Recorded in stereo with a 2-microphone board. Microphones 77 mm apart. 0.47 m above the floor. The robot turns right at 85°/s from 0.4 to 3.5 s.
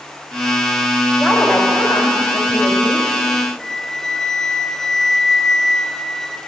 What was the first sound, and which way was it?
A woman speaking, straight ahead.